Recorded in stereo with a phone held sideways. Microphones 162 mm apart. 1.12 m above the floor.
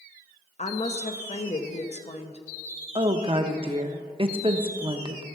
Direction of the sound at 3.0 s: 35° right (ahead or behind).